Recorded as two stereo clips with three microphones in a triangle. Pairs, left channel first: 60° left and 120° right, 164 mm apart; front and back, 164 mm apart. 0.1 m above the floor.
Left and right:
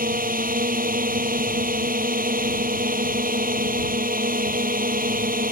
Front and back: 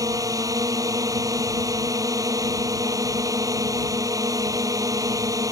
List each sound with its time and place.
0.0 s a drone: 115° right